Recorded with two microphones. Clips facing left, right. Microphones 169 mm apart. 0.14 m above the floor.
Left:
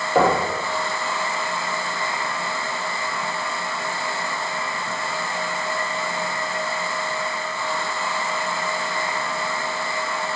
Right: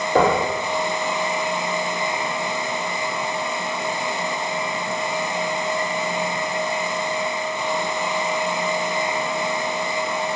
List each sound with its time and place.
0.1 s knocking: 60° right (ahead or behind), 3 m